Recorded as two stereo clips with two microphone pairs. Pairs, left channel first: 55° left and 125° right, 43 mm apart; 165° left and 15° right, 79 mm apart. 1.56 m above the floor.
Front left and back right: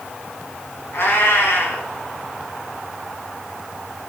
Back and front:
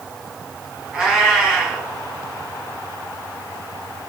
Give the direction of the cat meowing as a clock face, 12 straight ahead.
10 o'clock.